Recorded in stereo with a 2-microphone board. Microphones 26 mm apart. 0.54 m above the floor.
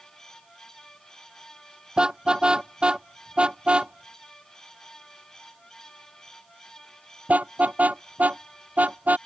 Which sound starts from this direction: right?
A car horn, at 2.0 s.